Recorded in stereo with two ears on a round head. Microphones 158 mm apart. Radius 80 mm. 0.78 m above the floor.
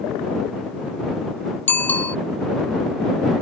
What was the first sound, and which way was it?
A bicycle bell, 10° left (ahead or behind).